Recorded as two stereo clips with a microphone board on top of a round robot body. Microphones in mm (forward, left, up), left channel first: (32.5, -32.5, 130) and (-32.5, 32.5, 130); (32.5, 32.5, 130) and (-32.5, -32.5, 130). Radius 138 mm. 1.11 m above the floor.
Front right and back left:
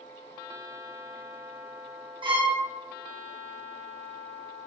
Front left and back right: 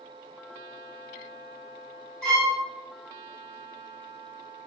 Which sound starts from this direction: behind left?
A violin, at 2.2 s.